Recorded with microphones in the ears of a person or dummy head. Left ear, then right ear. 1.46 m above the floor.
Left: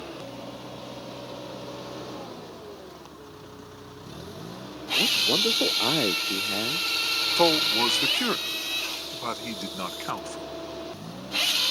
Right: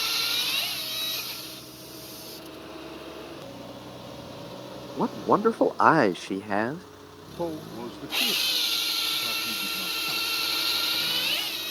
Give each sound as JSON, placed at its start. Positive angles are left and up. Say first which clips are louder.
{"t": 5.0, "sound": "a man speaking", "louder": "left 2 dB", "side_deg": -50}
{"t": 7.4, "sound": "a man speaking", "louder": "left 11 dB", "side_deg": 60}